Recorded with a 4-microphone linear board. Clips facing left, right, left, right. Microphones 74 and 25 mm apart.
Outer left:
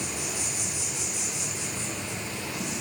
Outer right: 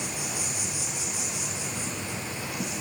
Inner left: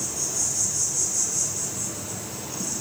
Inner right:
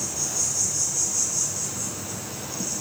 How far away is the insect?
About 2.5 m.